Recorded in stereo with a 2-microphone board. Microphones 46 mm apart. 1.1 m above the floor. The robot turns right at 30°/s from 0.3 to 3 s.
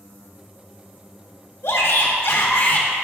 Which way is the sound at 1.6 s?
105° left.